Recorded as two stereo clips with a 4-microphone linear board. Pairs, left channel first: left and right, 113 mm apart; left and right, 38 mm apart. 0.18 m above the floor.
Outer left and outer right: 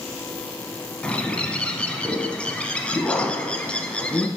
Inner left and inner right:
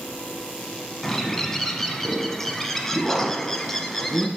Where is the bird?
10° left (ahead or behind), 0.9 m.